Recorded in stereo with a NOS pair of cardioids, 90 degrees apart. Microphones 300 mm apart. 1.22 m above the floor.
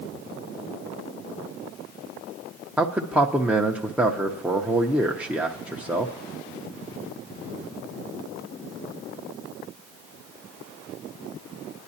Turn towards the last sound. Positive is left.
turn(degrees=-5)